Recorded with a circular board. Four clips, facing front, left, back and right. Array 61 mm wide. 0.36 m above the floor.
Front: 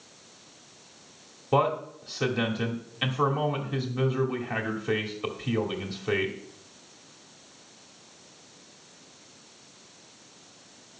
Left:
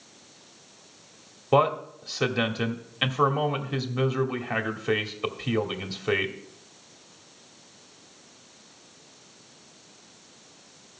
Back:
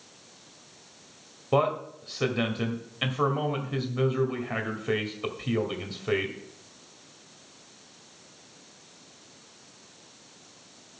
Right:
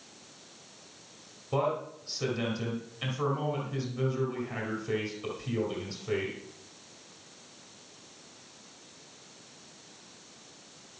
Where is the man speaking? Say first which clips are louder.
Left 8 dB, even; 95° left, 2 m.